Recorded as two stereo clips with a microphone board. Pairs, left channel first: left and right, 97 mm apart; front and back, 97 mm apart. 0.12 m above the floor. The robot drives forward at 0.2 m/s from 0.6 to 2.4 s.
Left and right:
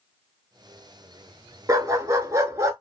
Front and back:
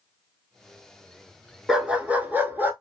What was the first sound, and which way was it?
A dog barking, 100° right.